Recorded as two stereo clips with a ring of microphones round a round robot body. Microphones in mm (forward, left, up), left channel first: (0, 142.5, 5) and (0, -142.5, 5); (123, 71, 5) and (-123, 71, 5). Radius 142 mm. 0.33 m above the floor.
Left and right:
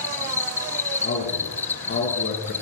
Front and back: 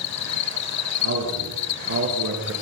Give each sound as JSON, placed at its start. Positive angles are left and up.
{"t": 0.0, "sound": "an insect", "azimuth_deg": 5, "distance_m": 1.0}
{"t": 1.0, "sound": "a man speaking", "azimuth_deg": 145, "distance_m": 5.5}